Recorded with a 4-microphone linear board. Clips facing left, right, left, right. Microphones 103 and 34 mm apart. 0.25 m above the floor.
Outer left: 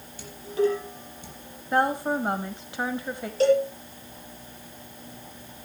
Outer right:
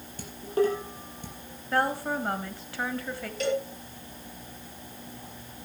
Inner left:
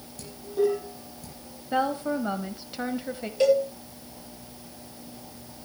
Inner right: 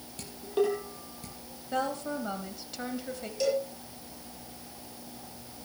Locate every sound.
0.2 s dishes clattering: 50° right (ahead or behind), 5.5 m
1.7 s a woman speaking: 20° left (ahead or behind), 1.2 m
3.4 s a cowbell: 35° left (ahead or behind), 6 m